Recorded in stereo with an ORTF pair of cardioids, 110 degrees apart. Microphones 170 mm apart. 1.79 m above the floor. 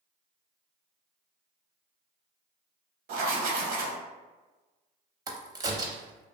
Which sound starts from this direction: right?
Writing, at 3.1 s.